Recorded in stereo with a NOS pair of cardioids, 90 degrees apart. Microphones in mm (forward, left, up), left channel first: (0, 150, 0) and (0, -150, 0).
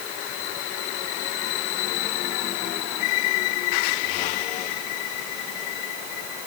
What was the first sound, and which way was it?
Only background noise.